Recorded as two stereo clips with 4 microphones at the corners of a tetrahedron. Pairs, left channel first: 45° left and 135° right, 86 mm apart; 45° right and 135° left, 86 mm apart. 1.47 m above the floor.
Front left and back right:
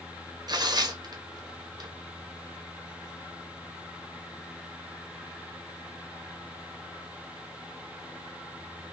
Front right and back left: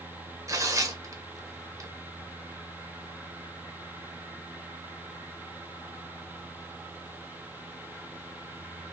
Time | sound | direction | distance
0.5 | tearing paper | 170° right | 0.9 m